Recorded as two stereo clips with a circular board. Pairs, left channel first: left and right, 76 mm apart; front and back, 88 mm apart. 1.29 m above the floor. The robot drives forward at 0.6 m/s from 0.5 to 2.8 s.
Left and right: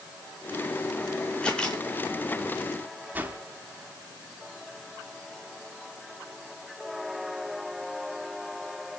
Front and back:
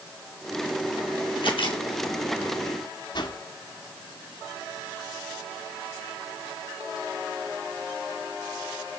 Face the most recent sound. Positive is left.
turn(degrees=-25)